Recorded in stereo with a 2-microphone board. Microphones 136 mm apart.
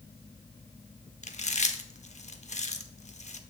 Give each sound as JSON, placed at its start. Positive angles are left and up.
{"t": 1.2, "sound": "chewing", "side_deg": 60, "distance_m": 0.6}